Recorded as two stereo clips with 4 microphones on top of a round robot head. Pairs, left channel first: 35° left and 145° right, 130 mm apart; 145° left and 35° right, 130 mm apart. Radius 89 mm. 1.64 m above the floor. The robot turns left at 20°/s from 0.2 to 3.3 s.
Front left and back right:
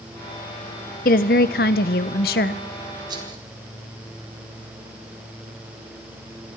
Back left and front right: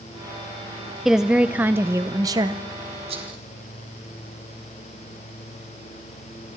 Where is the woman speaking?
55° left, 0.9 m; by 2.6 s 20° left, 0.9 m.